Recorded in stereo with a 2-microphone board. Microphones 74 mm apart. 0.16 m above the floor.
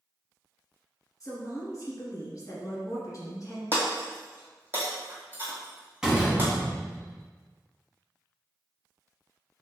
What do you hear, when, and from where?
1.2 s a woman speaking: 45° left (ahead or behind), 1.5 m
3.7 s breaking glass: 30° right (ahead or behind), 1.1 m
6.0 s a door slam: 10° right (ahead or behind), 0.7 m